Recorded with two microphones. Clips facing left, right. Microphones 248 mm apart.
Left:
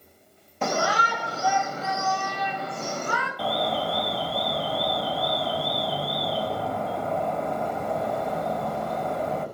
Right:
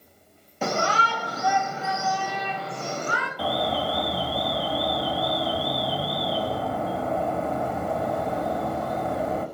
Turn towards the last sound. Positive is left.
turn(degrees=-5)  # may be behind; listen again after turning